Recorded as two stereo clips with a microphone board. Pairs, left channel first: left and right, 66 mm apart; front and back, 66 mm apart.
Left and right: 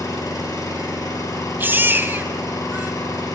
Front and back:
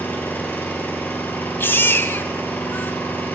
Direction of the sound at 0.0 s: 60° left.